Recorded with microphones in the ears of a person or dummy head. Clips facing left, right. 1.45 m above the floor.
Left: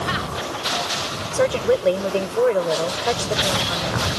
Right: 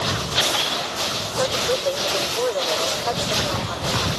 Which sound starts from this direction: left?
A woman speaking, at 1.3 s.